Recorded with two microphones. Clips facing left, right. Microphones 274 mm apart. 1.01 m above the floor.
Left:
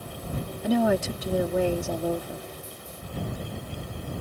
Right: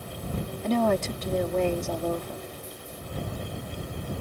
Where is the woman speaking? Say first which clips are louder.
Left 2 dB; 10° left (ahead or behind).